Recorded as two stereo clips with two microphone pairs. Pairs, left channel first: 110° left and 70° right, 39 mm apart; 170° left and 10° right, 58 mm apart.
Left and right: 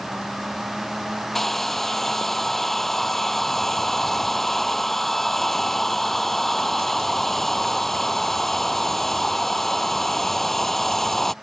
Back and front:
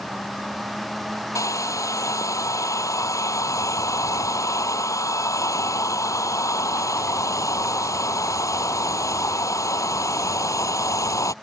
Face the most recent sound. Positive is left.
turn(degrees=-165)